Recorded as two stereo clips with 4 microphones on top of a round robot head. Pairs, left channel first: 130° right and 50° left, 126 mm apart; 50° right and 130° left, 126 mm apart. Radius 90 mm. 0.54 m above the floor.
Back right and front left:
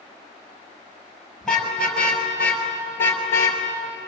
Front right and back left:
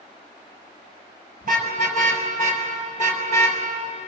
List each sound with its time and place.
1.4 s a car horn: 145° left, 5.5 m; by 3.6 s 165° left, 4.5 m